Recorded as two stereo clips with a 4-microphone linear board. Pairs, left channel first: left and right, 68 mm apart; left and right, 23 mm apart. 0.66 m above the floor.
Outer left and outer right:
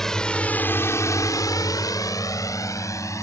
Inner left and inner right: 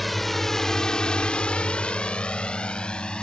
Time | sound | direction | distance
0.0 | a drone | 5° left (ahead or behind) | ?